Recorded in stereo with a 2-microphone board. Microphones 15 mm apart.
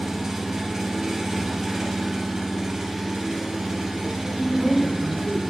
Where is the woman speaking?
45° right (ahead or behind), 1.4 m.